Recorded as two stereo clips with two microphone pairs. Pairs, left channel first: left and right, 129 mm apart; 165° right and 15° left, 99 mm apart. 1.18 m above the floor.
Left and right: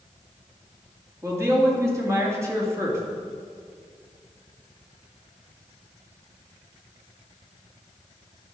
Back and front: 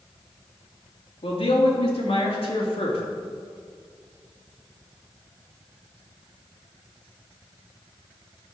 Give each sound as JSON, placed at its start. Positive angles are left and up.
{"t": 1.2, "sound": "a man speaking", "azimuth_deg": -160, "distance_m": 3.0}